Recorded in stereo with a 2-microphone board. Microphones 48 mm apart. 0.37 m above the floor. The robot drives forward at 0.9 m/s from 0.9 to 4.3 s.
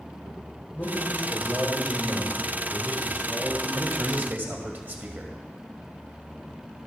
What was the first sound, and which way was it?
A man speaking, 45° left (ahead or behind).